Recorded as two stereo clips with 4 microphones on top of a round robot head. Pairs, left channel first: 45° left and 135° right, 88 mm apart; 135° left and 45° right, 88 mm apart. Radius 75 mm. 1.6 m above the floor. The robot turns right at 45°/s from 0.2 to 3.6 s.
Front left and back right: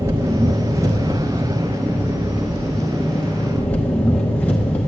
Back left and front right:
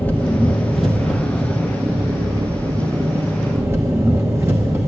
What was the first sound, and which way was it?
An engine running, 165° right.